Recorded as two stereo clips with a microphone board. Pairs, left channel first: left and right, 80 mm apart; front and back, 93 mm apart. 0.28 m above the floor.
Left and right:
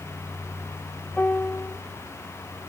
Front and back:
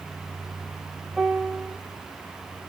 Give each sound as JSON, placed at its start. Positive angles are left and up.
{"t": 1.2, "sound": "a piano", "azimuth_deg": 100, "distance_m": 0.9}